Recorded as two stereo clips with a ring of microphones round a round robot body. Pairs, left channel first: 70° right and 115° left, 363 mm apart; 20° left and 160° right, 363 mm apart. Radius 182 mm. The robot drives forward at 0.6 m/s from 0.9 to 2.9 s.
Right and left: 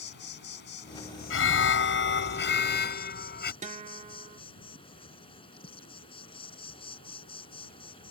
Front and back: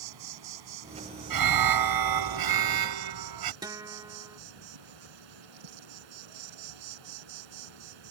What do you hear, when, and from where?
0.0 s an insect: 130° right; by 8.1 s 145° right
1.3 s an alarm: 125° right; by 3.5 s 130° right
3.6 s a guitar: 140° left